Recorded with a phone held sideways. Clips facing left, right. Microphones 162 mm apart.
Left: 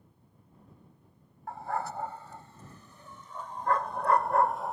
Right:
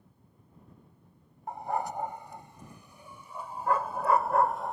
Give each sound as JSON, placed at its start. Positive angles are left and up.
{"t": 1.5, "sound": "a dog barking", "side_deg": -20}